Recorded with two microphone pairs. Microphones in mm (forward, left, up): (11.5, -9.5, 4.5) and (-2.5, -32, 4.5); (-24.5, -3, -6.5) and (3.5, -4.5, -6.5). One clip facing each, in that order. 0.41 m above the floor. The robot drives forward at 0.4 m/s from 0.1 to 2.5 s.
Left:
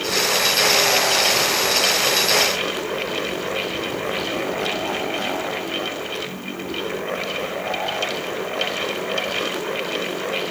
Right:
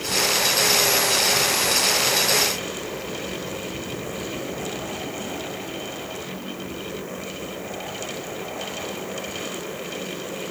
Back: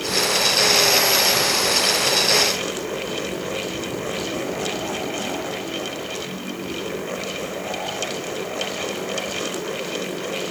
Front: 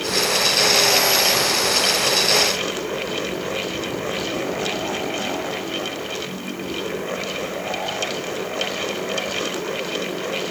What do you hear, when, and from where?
Only background noise.